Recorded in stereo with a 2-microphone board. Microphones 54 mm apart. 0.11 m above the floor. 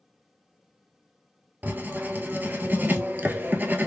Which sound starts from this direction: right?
Writing, at 1.6 s.